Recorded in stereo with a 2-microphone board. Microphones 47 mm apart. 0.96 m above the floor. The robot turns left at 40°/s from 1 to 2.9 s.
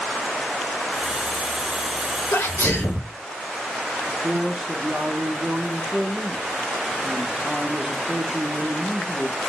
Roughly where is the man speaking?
Centre.